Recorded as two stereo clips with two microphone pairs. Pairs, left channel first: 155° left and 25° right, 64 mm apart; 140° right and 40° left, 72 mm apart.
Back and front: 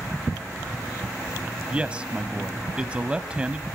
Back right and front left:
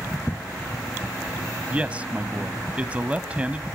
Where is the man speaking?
15° left, 1.0 m.